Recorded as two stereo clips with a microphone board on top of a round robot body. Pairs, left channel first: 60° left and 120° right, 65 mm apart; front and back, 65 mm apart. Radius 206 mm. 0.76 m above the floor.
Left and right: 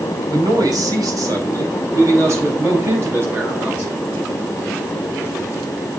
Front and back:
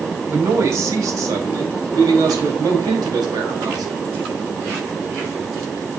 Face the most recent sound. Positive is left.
turn(degrees=180)